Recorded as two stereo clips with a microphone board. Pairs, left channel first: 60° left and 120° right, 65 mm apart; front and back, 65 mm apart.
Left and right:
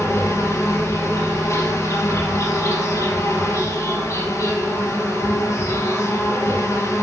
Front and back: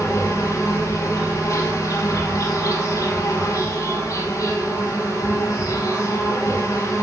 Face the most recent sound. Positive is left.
turn(degrees=25)